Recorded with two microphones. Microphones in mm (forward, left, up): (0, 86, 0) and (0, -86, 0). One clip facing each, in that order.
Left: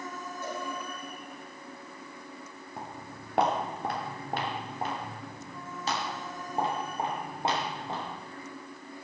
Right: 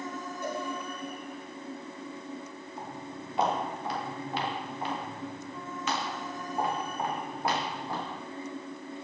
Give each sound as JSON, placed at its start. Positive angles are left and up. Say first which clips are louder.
{"t": 0.4, "sound": "a cowbell", "louder": "right 3 dB", "side_deg": -15, "distance_m": 8.5}
{"t": 2.8, "sound": "footsteps", "louder": "right 2 dB", "side_deg": 75, "distance_m": 4.5}